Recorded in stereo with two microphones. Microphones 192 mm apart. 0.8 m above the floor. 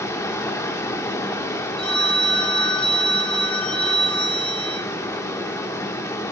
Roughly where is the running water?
Centre.